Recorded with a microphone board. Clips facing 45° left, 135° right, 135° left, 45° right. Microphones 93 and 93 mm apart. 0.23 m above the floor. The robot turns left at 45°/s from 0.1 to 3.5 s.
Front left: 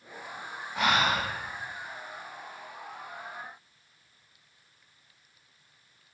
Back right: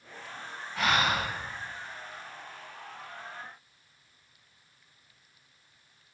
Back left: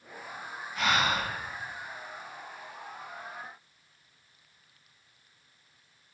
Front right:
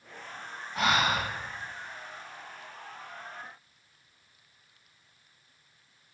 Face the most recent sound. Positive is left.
turn(degrees=-140)